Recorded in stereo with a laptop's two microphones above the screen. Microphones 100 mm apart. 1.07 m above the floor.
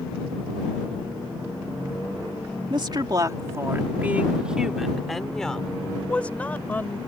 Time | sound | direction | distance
2.7 | a woman speaking | 55° right (ahead or behind) | ?